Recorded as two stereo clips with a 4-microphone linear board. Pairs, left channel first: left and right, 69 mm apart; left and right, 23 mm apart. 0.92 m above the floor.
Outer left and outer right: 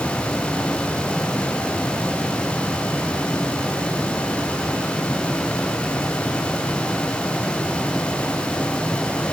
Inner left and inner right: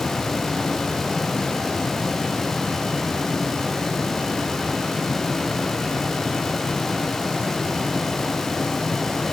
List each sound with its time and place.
Only background noise.